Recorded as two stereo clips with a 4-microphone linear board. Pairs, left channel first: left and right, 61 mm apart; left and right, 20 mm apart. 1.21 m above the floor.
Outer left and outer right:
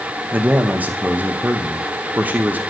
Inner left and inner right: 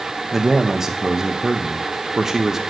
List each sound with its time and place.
0.3 s a man speaking: 25° right (ahead or behind), 0.7 m